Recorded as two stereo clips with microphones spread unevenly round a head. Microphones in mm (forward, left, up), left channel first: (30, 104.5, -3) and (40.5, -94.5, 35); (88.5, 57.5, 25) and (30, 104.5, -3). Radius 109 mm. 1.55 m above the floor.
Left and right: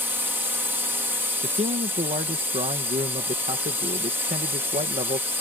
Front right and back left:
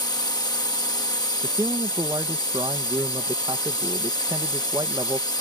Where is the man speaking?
155° right.